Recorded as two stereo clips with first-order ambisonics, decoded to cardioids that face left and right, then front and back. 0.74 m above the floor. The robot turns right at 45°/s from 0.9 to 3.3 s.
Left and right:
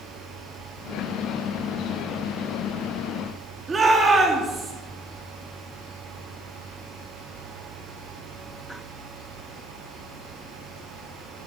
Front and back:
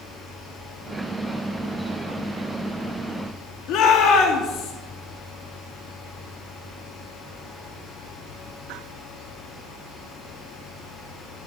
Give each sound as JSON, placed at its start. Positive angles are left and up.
{"t": 3.7, "sound": "a shout", "azimuth_deg": -15, "distance_m": 1.4}